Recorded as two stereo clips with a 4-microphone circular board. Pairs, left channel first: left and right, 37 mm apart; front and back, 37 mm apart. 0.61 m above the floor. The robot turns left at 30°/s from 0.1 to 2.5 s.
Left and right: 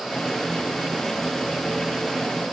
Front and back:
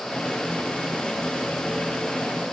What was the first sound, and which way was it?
Only background noise.